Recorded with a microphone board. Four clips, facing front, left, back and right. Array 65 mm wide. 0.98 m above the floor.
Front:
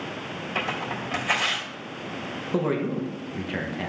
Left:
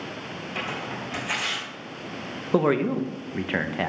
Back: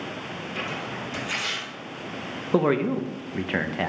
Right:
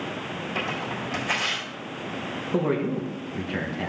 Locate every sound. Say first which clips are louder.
0.6 s tearing paper: right 1 dB, front 4 dB; 15° right, 3 m
2.5 s a man speaking: left 4 dB, back 4 dB; 130° left, 0.7 m